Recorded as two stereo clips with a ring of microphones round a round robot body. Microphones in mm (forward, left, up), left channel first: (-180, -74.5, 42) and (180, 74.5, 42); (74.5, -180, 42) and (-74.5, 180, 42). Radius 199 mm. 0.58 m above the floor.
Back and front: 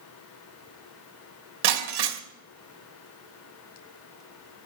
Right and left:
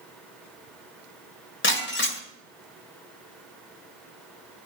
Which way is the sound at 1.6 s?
5° right.